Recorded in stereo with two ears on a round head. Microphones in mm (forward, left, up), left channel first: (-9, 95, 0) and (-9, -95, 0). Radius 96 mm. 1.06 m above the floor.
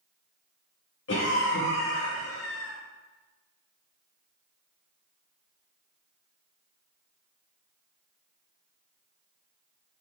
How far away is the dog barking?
No dog barking in this recording.